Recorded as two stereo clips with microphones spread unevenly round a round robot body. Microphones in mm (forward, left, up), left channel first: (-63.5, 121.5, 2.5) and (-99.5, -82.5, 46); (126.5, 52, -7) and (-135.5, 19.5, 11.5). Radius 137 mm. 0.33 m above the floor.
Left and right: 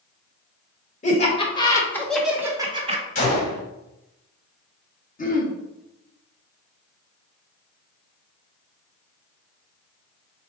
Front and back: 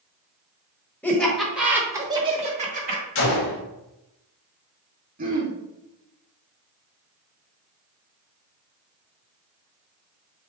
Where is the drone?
I don't hear a drone.